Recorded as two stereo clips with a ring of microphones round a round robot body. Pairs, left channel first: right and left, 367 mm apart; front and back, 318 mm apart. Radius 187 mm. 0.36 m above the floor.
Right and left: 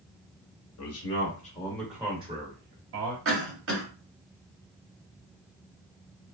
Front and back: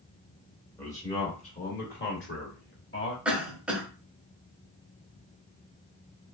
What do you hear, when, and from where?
0.8 s a man speaking: 80° right, 1.2 m; by 3.1 s 45° left, 1.6 m
3.2 s a cough: 95° left, 1.2 m